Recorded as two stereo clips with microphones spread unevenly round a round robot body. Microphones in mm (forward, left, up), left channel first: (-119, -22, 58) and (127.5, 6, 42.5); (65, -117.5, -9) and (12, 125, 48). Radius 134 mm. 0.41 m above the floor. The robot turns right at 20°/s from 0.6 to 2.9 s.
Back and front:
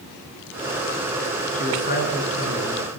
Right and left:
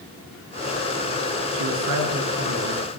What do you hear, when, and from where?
1.5 s a man speaking: 125° left, 7 m; by 3.0 s 150° left, 7 m